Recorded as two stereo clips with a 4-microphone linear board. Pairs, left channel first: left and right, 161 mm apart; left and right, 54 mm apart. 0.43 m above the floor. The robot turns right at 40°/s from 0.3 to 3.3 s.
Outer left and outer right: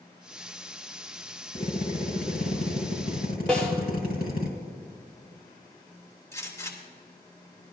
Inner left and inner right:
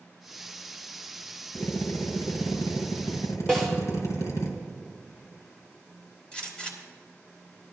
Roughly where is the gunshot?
Centre.